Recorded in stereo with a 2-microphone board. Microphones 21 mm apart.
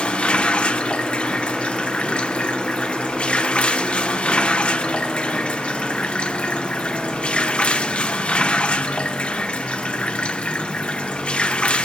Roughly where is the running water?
Left.